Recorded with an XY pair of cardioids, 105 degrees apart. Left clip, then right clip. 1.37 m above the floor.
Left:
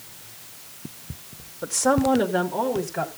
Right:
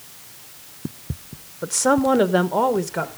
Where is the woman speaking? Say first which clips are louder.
Right 2 dB; 15° right, 0.8 m; by 3.1 s 70° right, 1.7 m.